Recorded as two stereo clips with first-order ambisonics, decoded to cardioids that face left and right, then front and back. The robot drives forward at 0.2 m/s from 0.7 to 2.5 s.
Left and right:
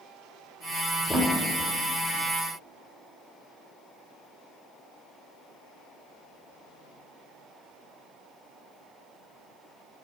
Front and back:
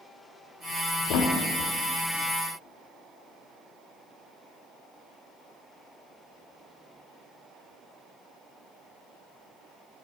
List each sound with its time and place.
1.1 s a thud: 5° right, 0.6 m